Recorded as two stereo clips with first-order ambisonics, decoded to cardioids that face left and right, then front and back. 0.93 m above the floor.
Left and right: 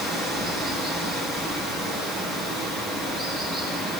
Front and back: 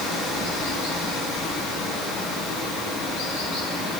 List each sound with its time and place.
0.0 s running water: 15° right, 8.5 m